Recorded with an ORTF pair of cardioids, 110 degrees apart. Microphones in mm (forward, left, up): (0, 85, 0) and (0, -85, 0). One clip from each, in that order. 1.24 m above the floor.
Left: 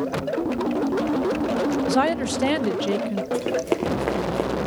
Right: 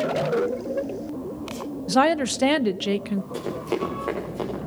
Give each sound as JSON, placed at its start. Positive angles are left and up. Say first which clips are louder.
{"t": 1.9, "sound": "a woman speaking", "louder": "right 6 dB", "azimuth_deg": -10, "distance_m": 0.6}
{"t": 3.3, "sound": "running footsteps", "louder": "left 4 dB", "azimuth_deg": 40, "distance_m": 6.5}